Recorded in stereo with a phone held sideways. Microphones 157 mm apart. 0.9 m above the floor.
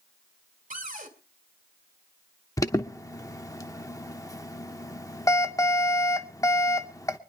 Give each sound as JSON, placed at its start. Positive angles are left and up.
{"t": 0.7, "sound": "a cupboard door", "side_deg": -55, "distance_m": 2.5}
{"t": 2.6, "sound": "an alarm", "side_deg": 20, "distance_m": 0.8}